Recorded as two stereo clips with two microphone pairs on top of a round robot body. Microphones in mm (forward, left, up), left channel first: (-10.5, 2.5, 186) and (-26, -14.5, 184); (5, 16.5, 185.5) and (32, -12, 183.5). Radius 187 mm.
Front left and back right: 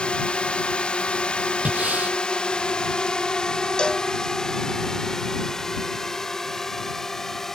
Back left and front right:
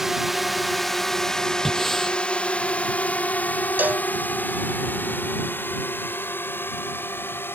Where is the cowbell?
5° right.